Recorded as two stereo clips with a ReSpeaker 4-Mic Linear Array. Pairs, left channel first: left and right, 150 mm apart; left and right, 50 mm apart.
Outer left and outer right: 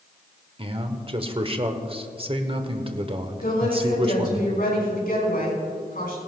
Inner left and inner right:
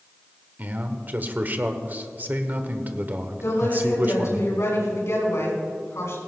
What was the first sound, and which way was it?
A man speaking, 40° right (ahead or behind).